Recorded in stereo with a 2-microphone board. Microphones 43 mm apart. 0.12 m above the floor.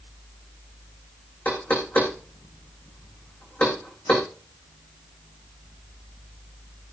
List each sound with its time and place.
1.4 s knocking: 50° left (ahead or behind), 6.5 m